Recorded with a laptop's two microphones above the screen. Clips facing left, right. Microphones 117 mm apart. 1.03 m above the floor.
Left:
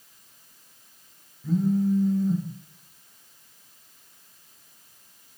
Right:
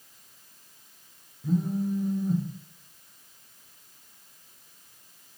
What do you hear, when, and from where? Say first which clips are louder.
1.4 s a phone buzzing: left 4 dB; 15° right (ahead or behind), 0.8 m